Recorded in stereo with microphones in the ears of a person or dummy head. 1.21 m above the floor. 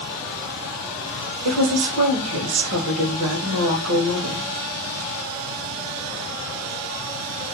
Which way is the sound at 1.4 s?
75° right (ahead or behind).